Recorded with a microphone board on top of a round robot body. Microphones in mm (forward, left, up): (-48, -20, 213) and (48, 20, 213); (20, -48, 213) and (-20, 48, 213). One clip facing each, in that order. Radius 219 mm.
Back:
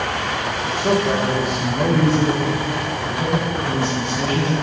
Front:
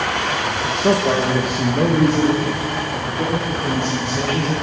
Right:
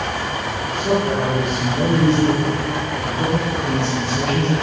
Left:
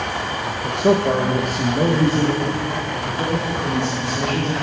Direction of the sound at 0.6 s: 100° left.